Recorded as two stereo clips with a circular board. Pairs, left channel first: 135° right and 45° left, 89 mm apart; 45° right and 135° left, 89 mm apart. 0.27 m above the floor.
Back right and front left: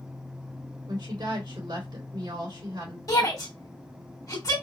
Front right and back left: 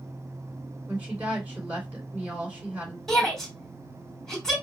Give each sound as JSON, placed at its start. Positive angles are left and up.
{"t": 0.9, "sound": "a woman speaking", "azimuth_deg": 60, "distance_m": 3.0}
{"t": 3.1, "sound": "a shout", "azimuth_deg": -130, "distance_m": 2.0}